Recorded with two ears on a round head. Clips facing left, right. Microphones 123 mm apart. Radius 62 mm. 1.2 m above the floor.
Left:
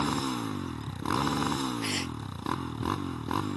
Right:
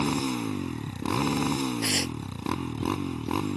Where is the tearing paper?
55° right (ahead or behind).